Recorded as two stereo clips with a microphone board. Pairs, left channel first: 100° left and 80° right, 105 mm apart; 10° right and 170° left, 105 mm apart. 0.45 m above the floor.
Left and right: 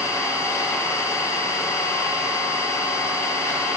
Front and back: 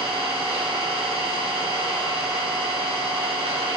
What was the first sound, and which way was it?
An engine running, 165° left.